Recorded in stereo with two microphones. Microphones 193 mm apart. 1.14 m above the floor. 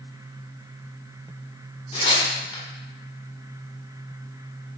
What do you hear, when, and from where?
1.9 s tearing paper: 30° left (ahead or behind), 1.0 m